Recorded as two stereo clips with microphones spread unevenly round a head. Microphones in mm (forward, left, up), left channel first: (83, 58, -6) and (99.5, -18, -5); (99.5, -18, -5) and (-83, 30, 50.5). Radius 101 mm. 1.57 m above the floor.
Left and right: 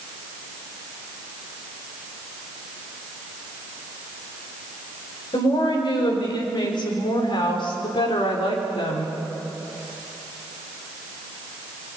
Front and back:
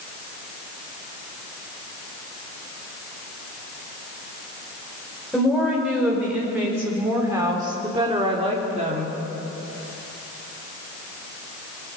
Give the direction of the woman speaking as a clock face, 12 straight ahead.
9 o'clock.